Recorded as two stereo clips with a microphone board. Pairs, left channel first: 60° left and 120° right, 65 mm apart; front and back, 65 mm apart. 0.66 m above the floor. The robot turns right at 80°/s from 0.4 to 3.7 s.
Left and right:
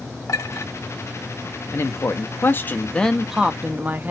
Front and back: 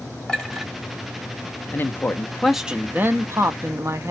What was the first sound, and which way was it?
A clink, 80° left.